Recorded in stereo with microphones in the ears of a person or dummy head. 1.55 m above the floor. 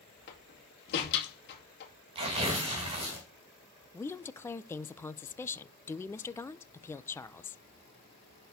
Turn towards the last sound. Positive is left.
turn(degrees=10)  # may be behind; listen again after turning